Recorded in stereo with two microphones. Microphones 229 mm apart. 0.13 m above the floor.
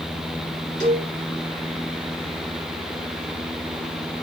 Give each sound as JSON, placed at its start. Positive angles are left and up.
{"t": 0.8, "sound": "a cowbell", "side_deg": -35, "distance_m": 2.0}